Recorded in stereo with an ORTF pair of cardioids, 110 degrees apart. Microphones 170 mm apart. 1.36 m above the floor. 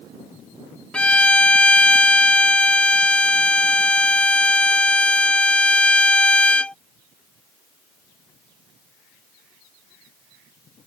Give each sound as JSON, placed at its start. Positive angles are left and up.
{"t": 0.9, "sound": "a violin", "azimuth_deg": 5}